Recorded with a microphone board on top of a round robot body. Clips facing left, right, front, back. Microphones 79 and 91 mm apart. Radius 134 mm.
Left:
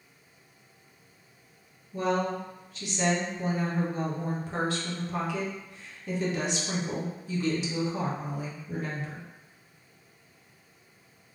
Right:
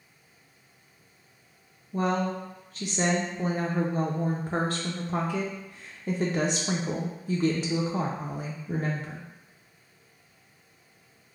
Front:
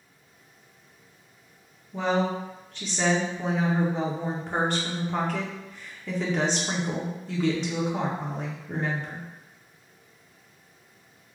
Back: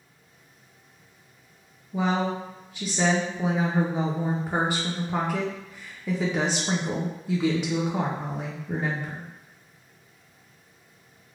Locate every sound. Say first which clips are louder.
1.9 s a woman speaking: right 1 dB, even; 105° right, 0.5 m